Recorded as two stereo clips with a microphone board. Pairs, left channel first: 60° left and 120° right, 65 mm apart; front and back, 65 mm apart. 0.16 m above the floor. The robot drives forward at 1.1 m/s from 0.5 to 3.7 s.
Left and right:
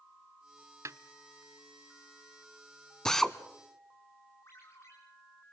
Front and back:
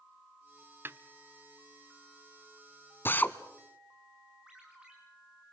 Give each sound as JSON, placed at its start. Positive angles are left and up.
{"t": 0.8, "sound": "a snare drum", "azimuth_deg": -135, "distance_m": 0.9}
{"t": 3.0, "sound": "a drill", "azimuth_deg": -15, "distance_m": 1.5}
{"t": 4.5, "sound": "a ringtone", "azimuth_deg": 105, "distance_m": 6.5}